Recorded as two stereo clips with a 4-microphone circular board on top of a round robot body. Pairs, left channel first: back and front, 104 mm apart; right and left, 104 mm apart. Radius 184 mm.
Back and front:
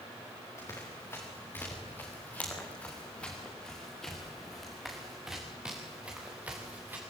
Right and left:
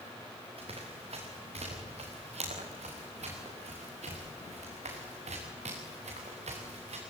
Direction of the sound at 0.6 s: 115° left.